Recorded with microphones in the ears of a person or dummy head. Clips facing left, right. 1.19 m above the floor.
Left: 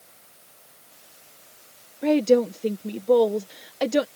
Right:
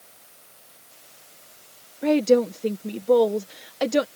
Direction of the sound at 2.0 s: Centre (ahead or behind).